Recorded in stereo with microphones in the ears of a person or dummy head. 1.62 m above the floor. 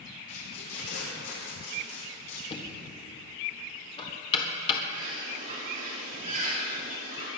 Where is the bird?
40° right (ahead or behind), 4 m.